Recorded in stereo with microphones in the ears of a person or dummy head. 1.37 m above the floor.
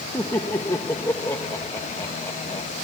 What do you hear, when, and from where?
0.1 s laughter: 20° left (ahead or behind)